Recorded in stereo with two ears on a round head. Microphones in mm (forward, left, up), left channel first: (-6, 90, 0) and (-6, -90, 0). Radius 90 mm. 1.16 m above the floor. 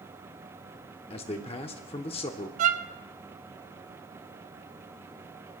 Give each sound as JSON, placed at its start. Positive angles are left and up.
{"t": 1.1, "sound": "a man speaking", "side_deg": 30, "distance_m": 0.8}
{"t": 2.6, "sound": "a violin", "side_deg": -35, "distance_m": 0.6}